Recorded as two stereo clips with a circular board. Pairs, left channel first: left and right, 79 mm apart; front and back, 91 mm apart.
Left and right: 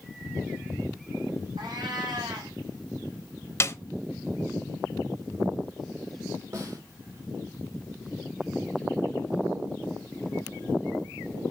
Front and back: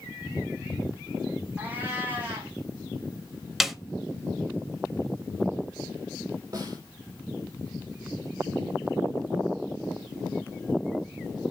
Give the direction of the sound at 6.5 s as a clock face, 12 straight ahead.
4 o'clock.